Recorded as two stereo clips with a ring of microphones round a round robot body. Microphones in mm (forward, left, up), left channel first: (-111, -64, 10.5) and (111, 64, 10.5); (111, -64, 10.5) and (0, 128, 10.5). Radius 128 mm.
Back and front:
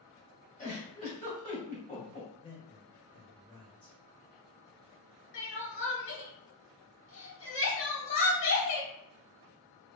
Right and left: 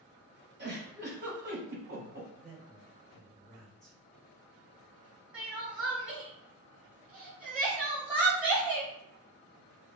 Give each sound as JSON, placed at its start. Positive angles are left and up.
{"t": 0.6, "sound": "a giggle", "azimuth_deg": 155, "distance_m": 1.9}
{"t": 2.4, "sound": "a man speaking", "azimuth_deg": -140, "distance_m": 1.1}
{"t": 5.3, "sound": "crying", "azimuth_deg": -155, "distance_m": 1.1}